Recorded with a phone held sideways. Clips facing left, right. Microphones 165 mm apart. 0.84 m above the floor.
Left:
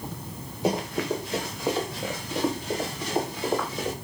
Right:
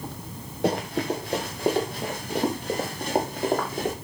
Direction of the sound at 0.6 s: 70° right (ahead or behind).